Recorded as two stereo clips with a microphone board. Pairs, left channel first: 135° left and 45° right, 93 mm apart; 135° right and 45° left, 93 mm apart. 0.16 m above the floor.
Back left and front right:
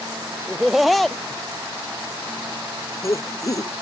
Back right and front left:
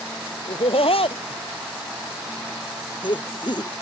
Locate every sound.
0.5 s laughter: 130° right; by 3.7 s 175° right